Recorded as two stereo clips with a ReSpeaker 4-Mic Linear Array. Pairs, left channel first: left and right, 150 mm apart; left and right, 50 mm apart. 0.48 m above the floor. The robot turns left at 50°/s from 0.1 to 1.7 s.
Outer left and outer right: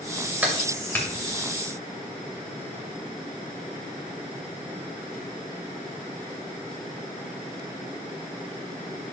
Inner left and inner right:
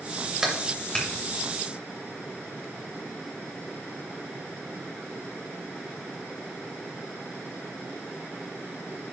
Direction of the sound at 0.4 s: 10° right (ahead or behind).